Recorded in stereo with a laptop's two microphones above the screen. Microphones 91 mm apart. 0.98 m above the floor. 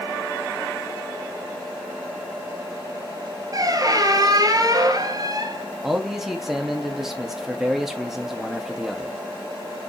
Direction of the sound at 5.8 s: 5° right (ahead or behind).